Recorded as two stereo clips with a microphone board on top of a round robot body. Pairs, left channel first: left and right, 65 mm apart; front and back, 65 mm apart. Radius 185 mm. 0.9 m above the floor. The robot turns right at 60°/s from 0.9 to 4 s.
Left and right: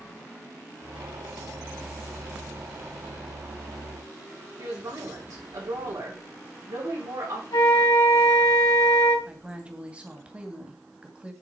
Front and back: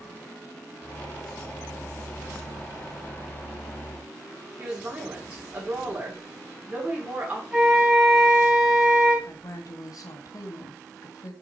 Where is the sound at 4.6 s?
110° right, 3 m.